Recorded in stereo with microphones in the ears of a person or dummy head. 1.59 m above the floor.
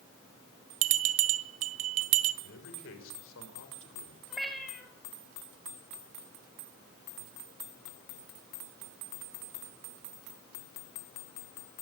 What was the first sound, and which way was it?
A bell, 35° right (ahead or behind).